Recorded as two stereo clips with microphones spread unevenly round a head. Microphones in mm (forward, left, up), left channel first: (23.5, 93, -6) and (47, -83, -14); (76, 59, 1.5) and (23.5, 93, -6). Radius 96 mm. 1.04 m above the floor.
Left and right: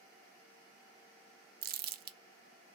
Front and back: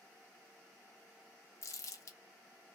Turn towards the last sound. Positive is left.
turn(degrees=-60)